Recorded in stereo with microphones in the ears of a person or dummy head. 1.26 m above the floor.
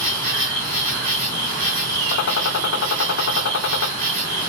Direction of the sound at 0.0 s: 45° right (ahead or behind).